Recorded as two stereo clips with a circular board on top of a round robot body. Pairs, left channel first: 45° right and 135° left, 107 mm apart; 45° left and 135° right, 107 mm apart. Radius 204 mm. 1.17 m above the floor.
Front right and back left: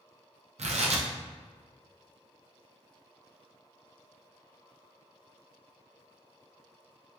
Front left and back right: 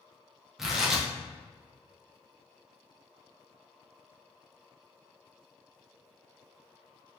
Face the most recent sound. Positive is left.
turn(degrees=140)